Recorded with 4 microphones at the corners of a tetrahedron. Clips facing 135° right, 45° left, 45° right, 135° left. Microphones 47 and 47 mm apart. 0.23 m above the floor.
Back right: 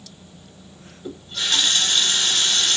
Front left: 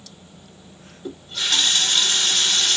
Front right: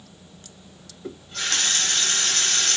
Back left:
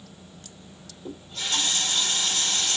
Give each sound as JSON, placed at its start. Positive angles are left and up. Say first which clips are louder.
{"t": 1.0, "sound": "a running tap", "louder": "even, front right 3 dB", "azimuth_deg": -40, "distance_m": 1.6}